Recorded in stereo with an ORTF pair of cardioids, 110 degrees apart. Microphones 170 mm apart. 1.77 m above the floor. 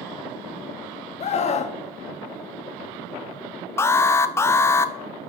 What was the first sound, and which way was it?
A scream, 40° left.